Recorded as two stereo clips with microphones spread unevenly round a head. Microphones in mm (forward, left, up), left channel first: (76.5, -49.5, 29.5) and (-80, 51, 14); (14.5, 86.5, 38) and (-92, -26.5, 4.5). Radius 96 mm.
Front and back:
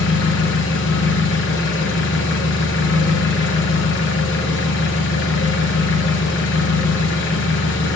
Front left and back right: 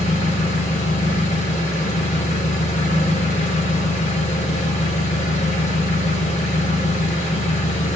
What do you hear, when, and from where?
0.0 s an engine running: 10° right, 0.9 m